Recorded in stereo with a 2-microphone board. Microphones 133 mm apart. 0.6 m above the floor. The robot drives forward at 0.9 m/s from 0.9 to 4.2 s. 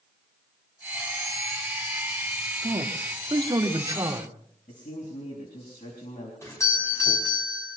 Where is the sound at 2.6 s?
40° right (ahead or behind), 1.5 m; by 4.4 s 25° right (ahead or behind), 2 m.